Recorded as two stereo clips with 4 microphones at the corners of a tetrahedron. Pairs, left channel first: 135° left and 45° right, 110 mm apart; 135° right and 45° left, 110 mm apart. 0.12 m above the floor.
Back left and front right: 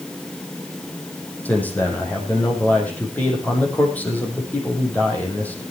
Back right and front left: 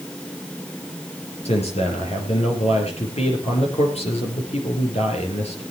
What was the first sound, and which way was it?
A man speaking, 150° right.